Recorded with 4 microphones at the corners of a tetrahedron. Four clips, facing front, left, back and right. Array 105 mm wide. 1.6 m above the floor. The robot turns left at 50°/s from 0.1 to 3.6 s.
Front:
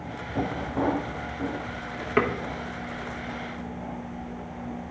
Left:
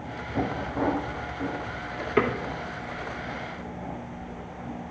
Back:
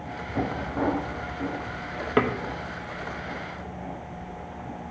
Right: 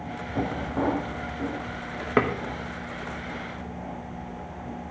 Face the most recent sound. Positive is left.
turn(degrees=175)